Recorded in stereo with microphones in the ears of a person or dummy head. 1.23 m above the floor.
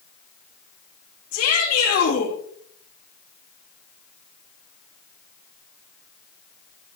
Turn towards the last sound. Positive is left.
turn(degrees=45)  # may be behind; listen again after turning